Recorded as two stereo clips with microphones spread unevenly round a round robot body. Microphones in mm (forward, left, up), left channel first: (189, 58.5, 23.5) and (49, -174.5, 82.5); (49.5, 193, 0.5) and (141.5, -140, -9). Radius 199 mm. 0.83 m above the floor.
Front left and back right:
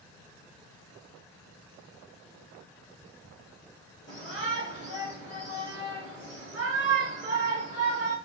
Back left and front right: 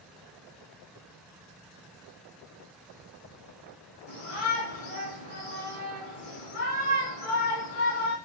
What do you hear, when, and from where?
4.1 s a shout: 120° left, 1.8 m